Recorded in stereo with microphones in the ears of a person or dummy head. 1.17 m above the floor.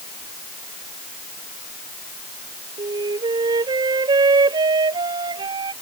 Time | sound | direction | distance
2.8 | a flute | 25° right (ahead or behind) | ?